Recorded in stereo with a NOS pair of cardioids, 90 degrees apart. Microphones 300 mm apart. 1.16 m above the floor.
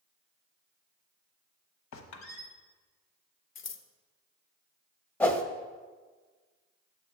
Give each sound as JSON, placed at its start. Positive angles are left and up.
{"t": 1.9, "sound": "a squeak", "azimuth_deg": 70, "distance_m": 1.0}
{"t": 3.5, "sound": "scissors", "azimuth_deg": 45, "distance_m": 0.6}
{"t": 5.2, "sound": "a whoosh", "azimuth_deg": 5, "distance_m": 0.7}